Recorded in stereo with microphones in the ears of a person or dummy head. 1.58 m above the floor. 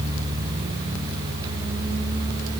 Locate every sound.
Only background noise.